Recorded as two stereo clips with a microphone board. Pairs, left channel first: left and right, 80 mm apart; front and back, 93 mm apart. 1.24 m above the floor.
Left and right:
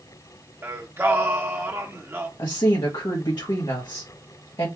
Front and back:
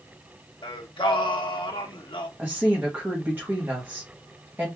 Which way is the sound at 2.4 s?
115° left.